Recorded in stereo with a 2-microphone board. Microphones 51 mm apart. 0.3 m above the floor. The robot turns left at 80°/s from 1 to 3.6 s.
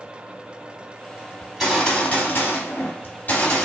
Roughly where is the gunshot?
Behind.